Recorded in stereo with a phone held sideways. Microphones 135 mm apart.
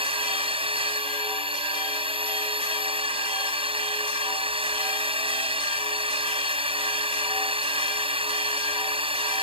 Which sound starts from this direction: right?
A drone, at 0.0 s.